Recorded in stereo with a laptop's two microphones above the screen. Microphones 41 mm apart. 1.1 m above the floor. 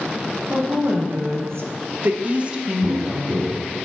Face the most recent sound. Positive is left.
turn(degrees=-35)  # may be behind; listen again after turning